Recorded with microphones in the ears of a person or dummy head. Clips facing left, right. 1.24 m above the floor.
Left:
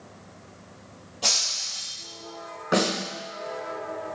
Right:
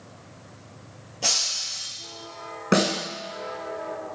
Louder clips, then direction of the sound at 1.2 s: Right 1 dB; 15° right (ahead or behind).